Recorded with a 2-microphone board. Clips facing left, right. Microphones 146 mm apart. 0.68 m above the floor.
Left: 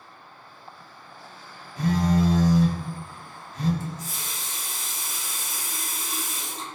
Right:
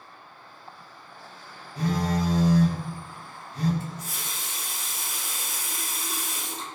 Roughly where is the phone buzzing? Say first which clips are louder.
Left 4 dB; right.